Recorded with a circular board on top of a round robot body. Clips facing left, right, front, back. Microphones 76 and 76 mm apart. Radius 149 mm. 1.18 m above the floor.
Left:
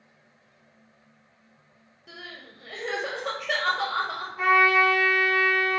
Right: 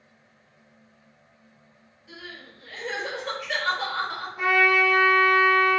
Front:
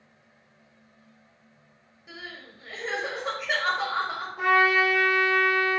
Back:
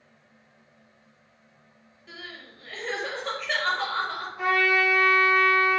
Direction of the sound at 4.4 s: 5° right.